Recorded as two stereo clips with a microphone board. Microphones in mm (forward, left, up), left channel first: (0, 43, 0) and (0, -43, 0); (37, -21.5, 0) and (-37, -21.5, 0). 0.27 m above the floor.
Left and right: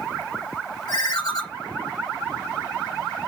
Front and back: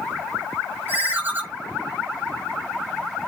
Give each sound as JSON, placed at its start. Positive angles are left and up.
{"t": 0.9, "sound": "a ringtone", "azimuth_deg": 120, "distance_m": 1.2}